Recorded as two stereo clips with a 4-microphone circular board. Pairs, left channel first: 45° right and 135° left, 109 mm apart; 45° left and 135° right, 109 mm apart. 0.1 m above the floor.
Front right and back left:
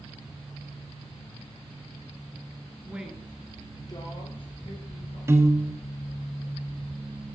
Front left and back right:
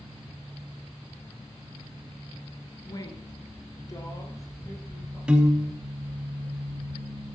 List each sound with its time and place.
2.9 s a woman speaking: 75° left, 1.3 m; by 5.2 s 20° right, 3.5 m
5.3 s a piano: 155° left, 0.7 m